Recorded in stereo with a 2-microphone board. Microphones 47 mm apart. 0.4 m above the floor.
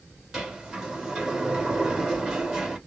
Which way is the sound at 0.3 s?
10° right (ahead or behind).